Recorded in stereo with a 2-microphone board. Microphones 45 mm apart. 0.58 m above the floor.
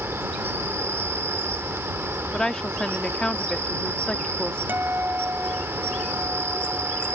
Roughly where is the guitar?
Right.